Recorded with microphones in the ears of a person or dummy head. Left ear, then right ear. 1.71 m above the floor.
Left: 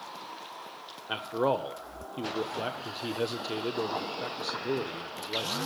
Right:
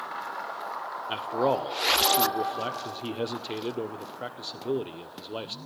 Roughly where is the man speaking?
Centre.